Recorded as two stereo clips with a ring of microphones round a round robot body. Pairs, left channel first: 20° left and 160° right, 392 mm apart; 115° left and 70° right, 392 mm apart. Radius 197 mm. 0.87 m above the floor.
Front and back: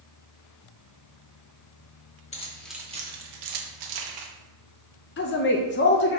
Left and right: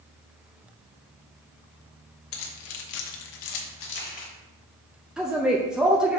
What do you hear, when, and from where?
2.3 s keys jangling: 95° left, 1.2 m; by 4.3 s 175° right, 1.4 m
5.2 s a woman speaking: 20° left, 0.6 m